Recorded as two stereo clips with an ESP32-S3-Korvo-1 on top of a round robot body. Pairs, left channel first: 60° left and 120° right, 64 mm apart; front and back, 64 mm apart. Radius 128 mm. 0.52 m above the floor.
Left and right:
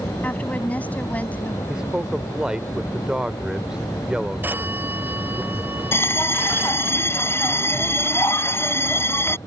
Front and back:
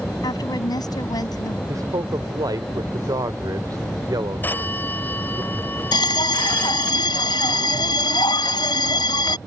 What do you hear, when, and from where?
0.2 s a woman speaking: 10° right
1.7 s a man speaking: 160° left
4.4 s a phone ringing: 60° right
5.9 s a bell: straight ahead